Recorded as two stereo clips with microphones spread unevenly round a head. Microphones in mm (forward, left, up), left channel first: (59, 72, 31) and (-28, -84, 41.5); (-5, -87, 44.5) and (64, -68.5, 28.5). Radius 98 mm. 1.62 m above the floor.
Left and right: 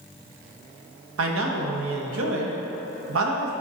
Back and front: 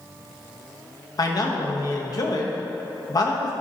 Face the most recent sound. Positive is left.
turn(degrees=-135)